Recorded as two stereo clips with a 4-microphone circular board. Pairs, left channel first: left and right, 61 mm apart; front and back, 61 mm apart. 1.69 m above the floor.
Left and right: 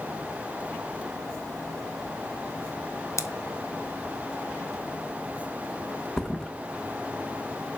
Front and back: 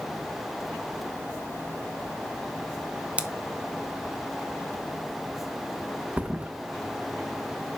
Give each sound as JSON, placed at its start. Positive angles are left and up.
{"t": 3.2, "sound": "scissors", "azimuth_deg": 110, "distance_m": 0.8}
{"t": 6.2, "sound": "a thud", "azimuth_deg": 160, "distance_m": 1.0}